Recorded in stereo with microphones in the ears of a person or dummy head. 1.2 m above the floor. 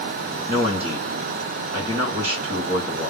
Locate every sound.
0.5 s a man speaking: 10° right (ahead or behind), 0.9 m